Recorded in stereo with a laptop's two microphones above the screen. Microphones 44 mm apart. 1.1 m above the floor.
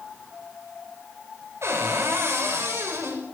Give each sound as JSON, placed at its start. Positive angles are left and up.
{"t": 1.6, "sound": "a cupboard door", "side_deg": -80, "distance_m": 5.5}